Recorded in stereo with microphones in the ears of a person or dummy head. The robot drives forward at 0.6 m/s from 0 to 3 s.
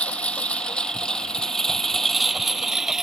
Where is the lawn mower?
10° left (ahead or behind); by 3.0 s centre (ahead or behind).